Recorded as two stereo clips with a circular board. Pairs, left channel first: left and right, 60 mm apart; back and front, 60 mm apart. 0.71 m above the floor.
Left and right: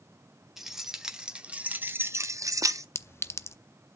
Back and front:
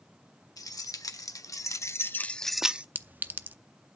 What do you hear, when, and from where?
0.6 s keys jangling: 175° right, 1.6 m; by 2.9 s 65° right, 0.7 m
3.0 s a clink: 55° left, 0.6 m